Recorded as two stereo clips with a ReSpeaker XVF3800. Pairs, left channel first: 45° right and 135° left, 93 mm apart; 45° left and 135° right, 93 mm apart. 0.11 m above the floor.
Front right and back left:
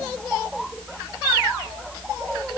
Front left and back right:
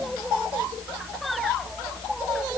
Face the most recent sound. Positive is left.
No sound to turn to.